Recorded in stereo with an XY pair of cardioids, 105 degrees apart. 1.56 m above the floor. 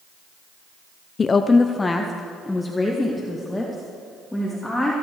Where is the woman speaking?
35° left, 0.6 m; by 4.9 s 5° left, 3 m.